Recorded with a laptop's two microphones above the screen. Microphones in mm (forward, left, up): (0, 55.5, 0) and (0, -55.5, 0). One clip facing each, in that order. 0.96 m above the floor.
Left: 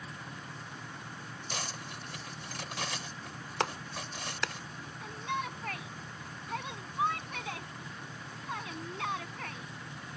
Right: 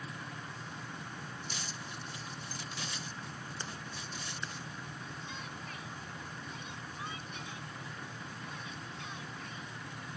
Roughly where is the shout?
Left.